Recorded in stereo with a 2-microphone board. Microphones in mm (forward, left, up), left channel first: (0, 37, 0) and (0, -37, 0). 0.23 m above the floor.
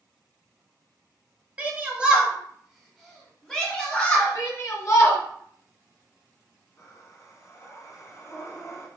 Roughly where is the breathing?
Left.